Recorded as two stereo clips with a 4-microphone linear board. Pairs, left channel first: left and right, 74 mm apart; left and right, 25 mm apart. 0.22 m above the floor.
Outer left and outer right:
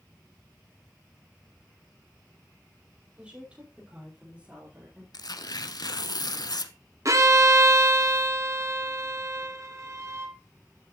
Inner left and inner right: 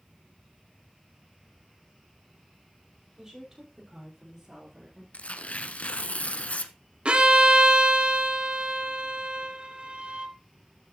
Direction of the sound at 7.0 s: 45° right (ahead or behind).